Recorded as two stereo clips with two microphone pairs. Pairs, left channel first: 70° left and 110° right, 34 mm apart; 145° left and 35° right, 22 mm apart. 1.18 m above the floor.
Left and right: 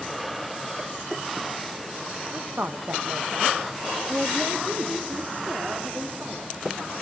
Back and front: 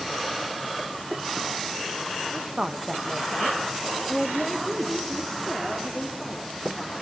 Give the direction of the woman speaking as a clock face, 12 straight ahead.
2 o'clock.